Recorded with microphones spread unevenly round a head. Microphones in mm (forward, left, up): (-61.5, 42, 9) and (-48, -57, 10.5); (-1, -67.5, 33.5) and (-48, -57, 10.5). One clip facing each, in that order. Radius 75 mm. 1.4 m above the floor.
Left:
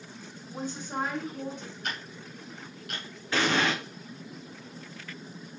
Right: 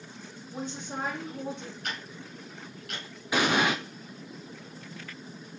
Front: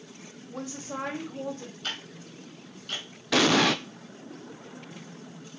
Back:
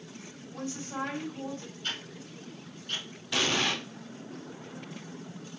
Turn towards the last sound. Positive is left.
turn(degrees=0)